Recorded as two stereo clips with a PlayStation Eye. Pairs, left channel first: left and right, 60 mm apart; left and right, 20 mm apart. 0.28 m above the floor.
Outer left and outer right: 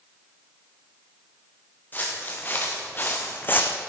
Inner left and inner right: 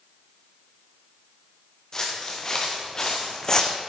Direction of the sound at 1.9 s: 30° left (ahead or behind).